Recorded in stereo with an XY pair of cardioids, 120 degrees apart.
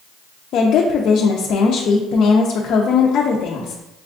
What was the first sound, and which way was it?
A woman speaking, 60° left.